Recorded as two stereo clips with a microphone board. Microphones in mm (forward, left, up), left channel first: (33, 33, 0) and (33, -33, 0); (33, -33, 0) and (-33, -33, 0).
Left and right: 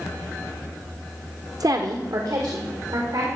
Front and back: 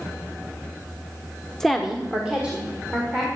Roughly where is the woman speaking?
Right.